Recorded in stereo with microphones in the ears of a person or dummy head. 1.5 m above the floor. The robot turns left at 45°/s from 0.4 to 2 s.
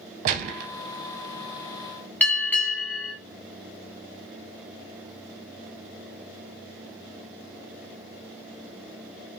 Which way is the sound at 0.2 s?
45° right (ahead or behind).